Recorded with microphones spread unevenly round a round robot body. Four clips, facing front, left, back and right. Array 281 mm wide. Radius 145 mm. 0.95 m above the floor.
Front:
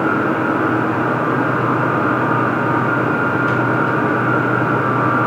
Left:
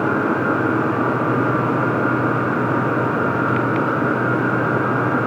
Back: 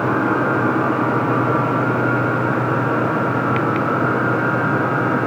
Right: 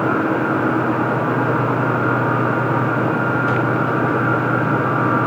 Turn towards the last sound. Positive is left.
No sound to turn to.